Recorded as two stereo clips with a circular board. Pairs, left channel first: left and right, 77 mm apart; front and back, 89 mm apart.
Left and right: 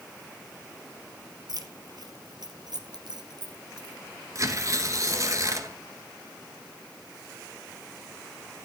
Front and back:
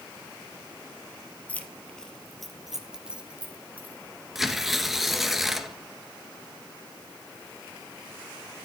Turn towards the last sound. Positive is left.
turn(degrees=-95)